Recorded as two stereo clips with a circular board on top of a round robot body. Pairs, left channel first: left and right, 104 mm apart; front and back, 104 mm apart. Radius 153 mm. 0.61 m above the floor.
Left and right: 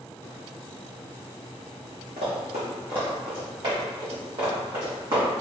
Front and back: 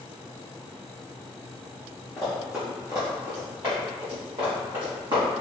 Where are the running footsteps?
70° right, 0.6 m; by 5.2 s 140° right, 2 m.